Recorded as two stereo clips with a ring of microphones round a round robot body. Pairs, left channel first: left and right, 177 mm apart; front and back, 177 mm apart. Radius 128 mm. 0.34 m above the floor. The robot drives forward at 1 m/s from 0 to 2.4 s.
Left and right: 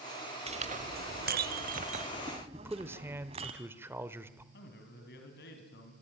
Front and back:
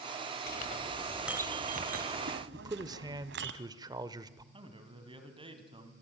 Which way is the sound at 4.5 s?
120° left.